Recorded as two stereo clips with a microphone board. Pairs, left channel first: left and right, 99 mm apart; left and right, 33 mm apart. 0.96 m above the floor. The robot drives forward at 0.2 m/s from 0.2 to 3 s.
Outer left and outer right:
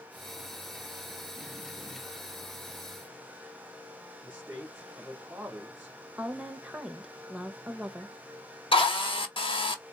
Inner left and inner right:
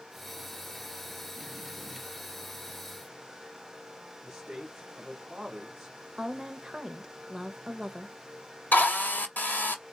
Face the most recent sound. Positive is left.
turn(degrees=60)  # may be behind; listen again after turning